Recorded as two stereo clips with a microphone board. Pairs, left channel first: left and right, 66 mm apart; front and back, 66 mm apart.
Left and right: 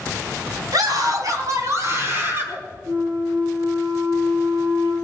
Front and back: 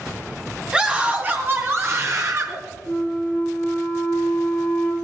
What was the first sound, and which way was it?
A scream, 105° right.